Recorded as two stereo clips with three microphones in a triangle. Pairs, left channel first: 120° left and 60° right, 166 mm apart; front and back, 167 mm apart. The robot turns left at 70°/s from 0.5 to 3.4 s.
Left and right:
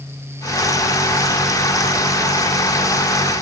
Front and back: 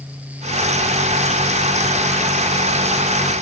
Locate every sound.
Only background noise.